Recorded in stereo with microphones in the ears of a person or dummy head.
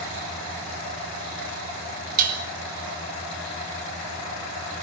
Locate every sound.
2.2 s dishes clattering: 55° right (ahead or behind), 4.5 m